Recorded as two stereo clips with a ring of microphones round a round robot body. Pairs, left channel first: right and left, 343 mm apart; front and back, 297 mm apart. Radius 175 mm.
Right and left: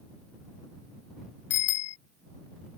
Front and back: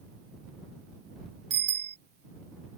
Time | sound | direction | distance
1.5 | a bicycle bell | 110° right | ?